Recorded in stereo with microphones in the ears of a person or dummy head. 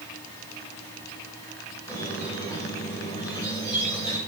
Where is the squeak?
30° left (ahead or behind), 3.5 m.